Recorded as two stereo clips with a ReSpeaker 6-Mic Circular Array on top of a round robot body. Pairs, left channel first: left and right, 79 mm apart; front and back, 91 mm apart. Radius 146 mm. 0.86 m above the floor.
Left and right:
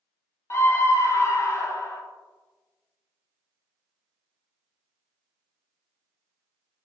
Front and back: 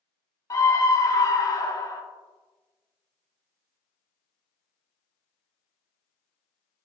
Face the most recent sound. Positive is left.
turn(degrees=45)